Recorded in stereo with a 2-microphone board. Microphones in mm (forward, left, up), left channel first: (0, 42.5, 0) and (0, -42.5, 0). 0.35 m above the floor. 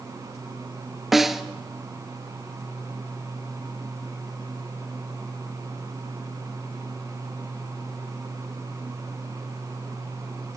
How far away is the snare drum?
About 1.3 m.